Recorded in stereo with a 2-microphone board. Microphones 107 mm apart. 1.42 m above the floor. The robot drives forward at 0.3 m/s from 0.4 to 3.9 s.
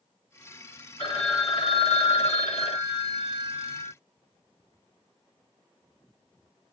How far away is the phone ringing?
About 1.7 m.